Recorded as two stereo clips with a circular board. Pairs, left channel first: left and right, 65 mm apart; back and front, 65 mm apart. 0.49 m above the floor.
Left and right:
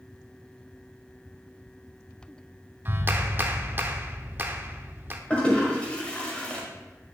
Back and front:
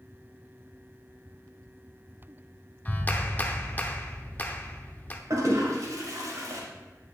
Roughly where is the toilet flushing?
Ahead.